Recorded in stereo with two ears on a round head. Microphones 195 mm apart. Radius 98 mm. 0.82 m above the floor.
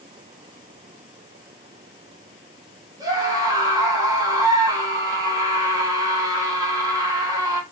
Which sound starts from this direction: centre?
A scream, at 3.0 s.